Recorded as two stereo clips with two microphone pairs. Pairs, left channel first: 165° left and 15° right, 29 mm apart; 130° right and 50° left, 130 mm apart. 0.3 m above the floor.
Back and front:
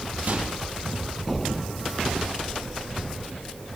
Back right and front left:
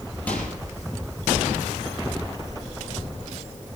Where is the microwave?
50° right, 6.5 m.